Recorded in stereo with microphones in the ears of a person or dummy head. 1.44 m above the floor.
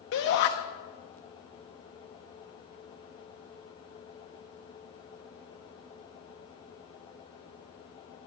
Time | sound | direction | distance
0.1 | a shout | 55° left (ahead or behind) | 0.7 m